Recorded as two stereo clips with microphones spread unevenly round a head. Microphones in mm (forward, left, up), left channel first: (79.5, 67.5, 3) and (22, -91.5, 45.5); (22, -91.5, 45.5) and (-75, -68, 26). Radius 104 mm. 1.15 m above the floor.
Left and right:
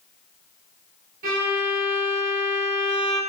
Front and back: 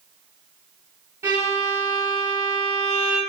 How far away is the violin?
About 3.5 m.